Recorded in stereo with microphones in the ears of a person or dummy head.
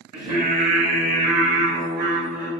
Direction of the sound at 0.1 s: 50° right (ahead or behind).